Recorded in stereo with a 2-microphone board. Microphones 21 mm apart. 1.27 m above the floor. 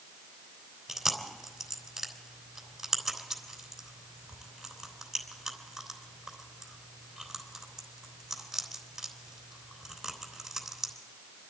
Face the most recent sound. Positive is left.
turn(degrees=-15)  # may be behind; listen again after turning